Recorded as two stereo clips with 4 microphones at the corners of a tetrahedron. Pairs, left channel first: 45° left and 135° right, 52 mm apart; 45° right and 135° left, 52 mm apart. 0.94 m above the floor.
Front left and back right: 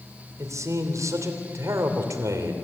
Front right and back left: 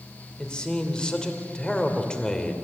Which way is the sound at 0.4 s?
115° right.